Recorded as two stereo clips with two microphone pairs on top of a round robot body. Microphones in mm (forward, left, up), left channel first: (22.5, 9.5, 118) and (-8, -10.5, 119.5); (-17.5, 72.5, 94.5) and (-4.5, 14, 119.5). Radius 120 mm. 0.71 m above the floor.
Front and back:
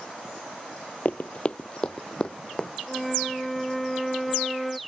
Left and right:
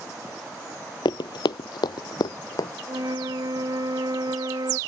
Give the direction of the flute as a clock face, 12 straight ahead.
2 o'clock.